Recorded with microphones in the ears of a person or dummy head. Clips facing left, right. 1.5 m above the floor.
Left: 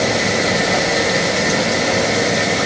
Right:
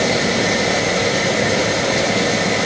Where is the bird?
No bird in this recording.